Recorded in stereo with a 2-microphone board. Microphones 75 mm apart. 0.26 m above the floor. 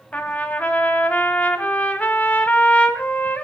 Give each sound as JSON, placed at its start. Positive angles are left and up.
{"t": 0.1, "sound": "a trumpet", "side_deg": 20, "distance_m": 1.7}